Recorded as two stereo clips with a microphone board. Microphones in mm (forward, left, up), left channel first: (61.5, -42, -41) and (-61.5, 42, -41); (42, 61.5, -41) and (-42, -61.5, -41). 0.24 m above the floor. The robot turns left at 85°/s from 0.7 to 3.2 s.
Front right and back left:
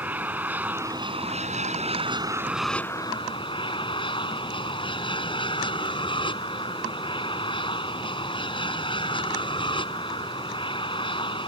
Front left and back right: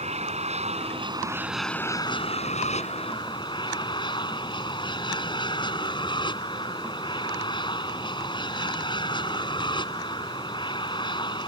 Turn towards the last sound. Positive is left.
turn(degrees=10)